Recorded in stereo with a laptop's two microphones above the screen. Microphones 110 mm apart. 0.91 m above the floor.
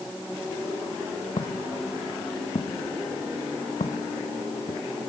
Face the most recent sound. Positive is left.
turn(degrees=70)  # may be behind; listen again after turning